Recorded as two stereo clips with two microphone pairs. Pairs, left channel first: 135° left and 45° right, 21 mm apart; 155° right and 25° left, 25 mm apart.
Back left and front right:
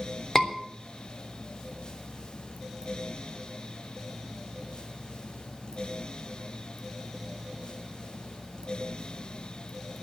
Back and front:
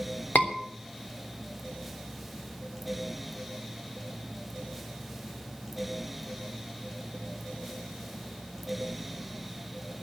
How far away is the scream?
About 3 m.